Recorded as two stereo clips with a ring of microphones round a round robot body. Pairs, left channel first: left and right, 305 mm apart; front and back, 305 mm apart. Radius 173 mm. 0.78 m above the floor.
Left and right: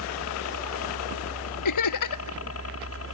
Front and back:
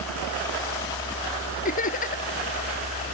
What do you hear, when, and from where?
0.0 s a helicopter: 85° left; by 3.1 s 65° left
1.6 s laughter: 70° left